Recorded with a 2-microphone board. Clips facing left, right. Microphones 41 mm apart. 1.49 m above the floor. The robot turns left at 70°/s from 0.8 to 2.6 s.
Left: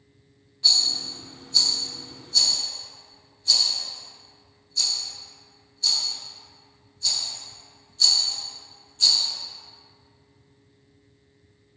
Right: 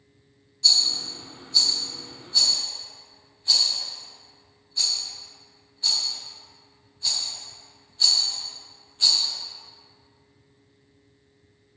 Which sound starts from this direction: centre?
A rattle, at 0.6 s.